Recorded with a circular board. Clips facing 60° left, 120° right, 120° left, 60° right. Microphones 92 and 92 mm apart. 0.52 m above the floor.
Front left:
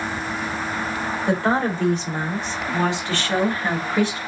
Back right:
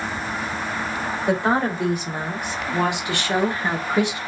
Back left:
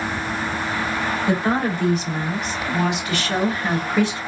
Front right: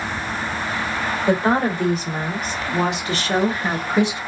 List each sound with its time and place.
1.3 s a woman speaking: 45° right, 2 m; by 4.2 s 100° right, 1.1 m